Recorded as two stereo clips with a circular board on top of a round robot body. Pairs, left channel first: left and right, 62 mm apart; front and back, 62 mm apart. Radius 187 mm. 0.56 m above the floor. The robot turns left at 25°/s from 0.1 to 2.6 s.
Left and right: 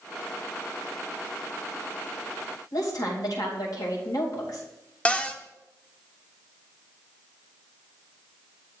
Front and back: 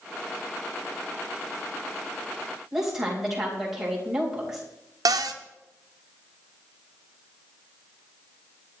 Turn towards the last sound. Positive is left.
turn(degrees=165)